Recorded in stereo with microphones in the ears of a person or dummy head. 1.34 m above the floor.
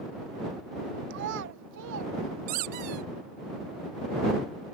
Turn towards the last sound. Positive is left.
turn(degrees=-40)  # may be behind; listen again after turning